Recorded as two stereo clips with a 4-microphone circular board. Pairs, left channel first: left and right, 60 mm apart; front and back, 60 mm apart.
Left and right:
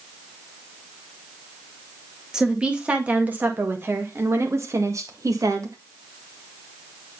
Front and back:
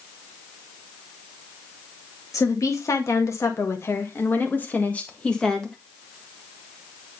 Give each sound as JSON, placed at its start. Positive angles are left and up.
{"t": 2.3, "sound": "a woman speaking", "azimuth_deg": -15, "distance_m": 2.0}